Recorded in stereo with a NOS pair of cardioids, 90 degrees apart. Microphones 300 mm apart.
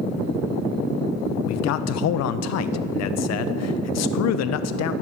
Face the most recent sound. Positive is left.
turn(degrees=65)